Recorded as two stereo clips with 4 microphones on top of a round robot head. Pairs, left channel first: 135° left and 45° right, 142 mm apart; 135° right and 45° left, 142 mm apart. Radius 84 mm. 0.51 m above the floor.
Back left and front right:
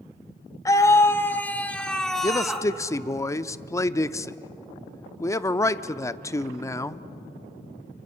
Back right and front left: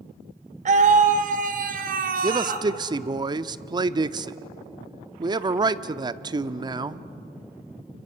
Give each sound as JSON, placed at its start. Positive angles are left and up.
{"t": 0.7, "sound": "a scream", "azimuth_deg": 70, "distance_m": 1.9}
{"t": 2.2, "sound": "a man speaking", "azimuth_deg": 80, "distance_m": 0.7}